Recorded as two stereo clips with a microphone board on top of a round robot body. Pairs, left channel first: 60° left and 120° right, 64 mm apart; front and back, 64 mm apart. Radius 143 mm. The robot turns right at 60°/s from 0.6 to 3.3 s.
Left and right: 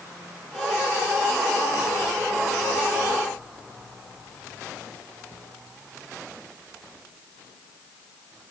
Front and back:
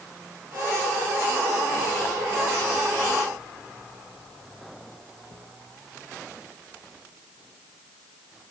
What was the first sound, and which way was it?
Only background noise.